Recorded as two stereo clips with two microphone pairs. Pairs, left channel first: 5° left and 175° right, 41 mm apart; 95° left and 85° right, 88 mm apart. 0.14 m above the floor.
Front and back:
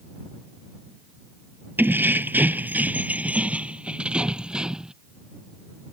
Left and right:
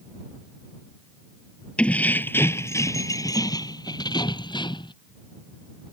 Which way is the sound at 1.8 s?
170° left.